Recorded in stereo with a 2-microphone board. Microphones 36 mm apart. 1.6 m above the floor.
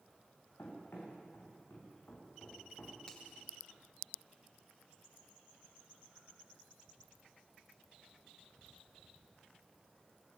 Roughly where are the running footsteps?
Left.